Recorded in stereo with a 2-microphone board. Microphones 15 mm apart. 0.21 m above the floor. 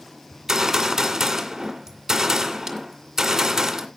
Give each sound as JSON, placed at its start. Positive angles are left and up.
{"t": 0.3, "sound": "a gunshot", "side_deg": -35, "distance_m": 2.5}